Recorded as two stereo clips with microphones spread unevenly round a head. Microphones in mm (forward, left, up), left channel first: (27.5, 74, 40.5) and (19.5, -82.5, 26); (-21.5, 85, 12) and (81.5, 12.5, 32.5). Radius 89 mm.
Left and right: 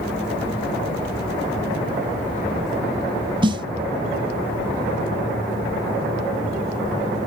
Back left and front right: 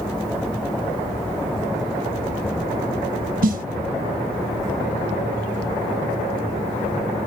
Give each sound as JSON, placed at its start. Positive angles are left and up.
{"t": 3.4, "sound": "a snare drum", "azimuth_deg": -35, "distance_m": 0.6}